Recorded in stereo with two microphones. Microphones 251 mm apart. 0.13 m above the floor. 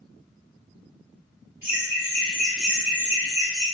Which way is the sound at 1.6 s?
15° left (ahead or behind).